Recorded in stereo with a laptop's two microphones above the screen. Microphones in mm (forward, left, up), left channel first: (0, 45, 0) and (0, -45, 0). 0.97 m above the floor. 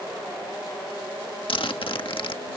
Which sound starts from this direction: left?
A zipper, at 1.5 s.